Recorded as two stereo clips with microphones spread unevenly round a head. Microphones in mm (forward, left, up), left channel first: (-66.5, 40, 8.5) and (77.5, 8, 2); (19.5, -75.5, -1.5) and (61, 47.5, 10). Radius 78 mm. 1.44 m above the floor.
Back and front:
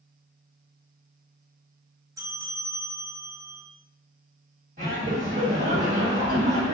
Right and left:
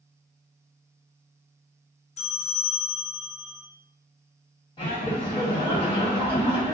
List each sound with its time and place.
2.2 s a bell: 80° right, 0.6 m
4.8 s laughter: 60° right, 1.5 m